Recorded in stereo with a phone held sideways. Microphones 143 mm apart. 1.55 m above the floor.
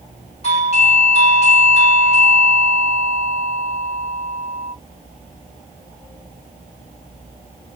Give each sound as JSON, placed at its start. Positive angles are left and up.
{"t": 0.4, "sound": "a doorbell", "side_deg": 50, "distance_m": 1.6}